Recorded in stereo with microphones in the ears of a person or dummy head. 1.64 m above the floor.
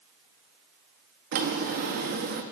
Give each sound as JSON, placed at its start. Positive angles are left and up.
{"t": 1.3, "sound": "a drawer", "side_deg": -55, "distance_m": 1.5}